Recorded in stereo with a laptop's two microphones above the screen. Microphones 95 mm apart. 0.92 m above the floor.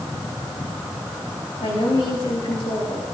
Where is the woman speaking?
85° left, 7.5 m.